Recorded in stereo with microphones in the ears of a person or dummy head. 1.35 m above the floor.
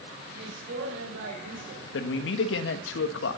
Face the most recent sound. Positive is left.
turn(degrees=75)  # may be behind; listen again after turning